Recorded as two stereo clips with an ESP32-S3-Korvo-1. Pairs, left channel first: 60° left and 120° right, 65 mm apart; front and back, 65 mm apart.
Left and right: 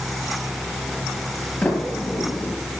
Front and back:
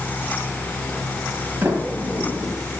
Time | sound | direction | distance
1.6 | a sliding door | 125° left | 5.5 m